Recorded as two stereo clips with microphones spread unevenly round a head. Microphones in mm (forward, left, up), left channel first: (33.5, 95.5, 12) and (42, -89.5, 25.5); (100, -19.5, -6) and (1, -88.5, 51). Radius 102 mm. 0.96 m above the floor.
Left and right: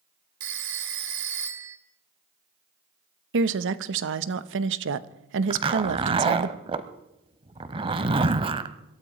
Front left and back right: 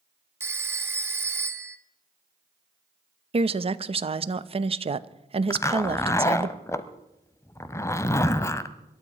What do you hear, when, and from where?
0.4 s a phone ringing: 80° right, 1.6 m
3.3 s a woman speaking: 95° right, 0.9 m
5.5 s a zipper: 55° right, 0.9 m